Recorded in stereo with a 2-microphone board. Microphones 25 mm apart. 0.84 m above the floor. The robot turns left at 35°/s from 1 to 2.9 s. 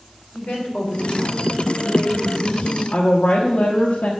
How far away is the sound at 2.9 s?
About 1.1 m.